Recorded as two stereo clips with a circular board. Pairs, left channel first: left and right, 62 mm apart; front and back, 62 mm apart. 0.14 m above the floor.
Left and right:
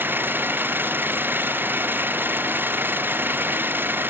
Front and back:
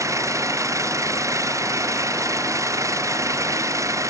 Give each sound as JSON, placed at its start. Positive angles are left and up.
{"t": 0.0, "sound": "an engine running", "azimuth_deg": -145}